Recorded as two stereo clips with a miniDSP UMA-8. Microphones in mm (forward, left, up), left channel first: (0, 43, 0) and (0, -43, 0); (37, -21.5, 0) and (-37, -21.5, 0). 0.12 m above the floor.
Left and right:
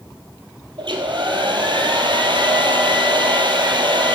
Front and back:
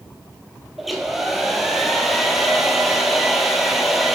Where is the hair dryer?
95° right, 0.8 m.